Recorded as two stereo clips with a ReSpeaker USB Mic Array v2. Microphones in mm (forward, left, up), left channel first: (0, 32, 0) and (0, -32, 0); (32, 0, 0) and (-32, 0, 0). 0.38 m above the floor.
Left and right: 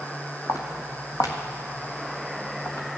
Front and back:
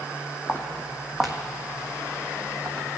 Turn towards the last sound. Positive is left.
turn(degrees=135)